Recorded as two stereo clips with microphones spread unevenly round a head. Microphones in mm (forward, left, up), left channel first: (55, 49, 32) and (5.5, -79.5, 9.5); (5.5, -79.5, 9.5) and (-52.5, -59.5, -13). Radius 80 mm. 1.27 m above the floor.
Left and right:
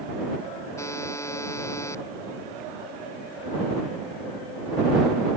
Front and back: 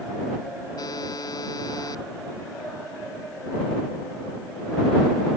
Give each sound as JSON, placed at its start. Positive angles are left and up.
{"t": 0.8, "sound": "a buzzer", "azimuth_deg": 0}